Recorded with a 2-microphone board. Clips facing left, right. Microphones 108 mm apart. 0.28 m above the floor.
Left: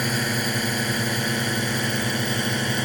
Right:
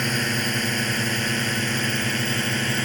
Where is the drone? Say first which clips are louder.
Even; 10° left (ahead or behind); by 2.9 s 15° left (ahead or behind).